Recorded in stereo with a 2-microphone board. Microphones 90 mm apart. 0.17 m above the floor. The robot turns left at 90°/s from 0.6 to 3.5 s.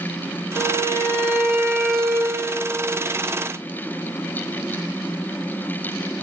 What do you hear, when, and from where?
0.6 s a violin: 85° left, 5.5 m; by 2.4 s 75° right, 5.5 m